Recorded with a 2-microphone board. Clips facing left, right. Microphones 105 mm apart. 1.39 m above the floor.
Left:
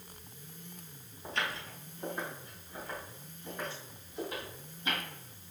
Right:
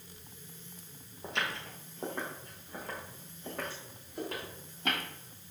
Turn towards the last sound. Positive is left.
turn(degrees=-65)  # may be behind; listen again after turning